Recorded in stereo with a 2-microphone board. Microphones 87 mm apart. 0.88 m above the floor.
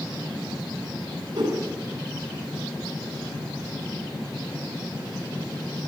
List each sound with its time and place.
1.3 s a whoosh: 60° right (ahead or behind), 8.5 m